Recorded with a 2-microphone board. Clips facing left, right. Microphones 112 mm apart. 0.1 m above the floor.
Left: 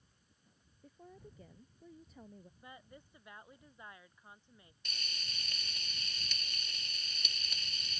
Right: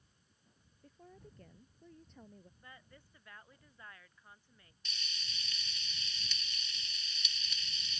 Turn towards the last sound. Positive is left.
turn(degrees=50)  # may be behind; listen again after turning